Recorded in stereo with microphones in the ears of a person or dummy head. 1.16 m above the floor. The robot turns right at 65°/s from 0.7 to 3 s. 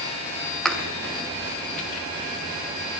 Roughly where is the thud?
Centre.